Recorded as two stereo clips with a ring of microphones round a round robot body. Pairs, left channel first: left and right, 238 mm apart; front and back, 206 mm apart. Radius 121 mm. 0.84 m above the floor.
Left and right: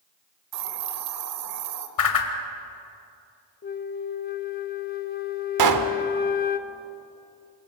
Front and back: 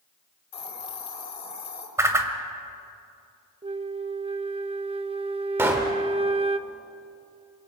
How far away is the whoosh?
About 2 m.